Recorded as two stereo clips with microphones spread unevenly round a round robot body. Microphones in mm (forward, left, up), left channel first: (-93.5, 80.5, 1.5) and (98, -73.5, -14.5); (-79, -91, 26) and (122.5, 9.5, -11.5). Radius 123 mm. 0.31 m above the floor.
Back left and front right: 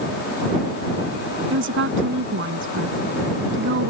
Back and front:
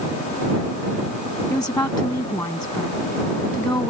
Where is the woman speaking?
75° right.